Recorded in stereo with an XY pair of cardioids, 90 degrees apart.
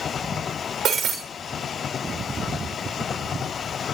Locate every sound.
0.8 s breaking glass: 65° right, 6.5 m